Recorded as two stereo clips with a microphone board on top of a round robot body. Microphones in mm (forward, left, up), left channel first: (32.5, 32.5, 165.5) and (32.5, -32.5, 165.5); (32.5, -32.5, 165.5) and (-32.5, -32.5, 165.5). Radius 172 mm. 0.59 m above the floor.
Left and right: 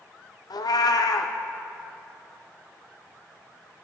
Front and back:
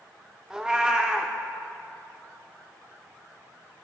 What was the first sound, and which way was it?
A cat meowing, 100° left.